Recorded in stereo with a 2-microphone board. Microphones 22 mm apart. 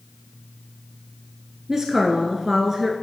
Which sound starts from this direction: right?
A woman speaking, at 1.7 s.